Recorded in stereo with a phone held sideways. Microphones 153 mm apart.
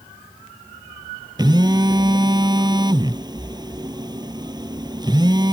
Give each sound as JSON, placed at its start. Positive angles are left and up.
{"t": 1.4, "sound": "a phone buzzing", "side_deg": -30}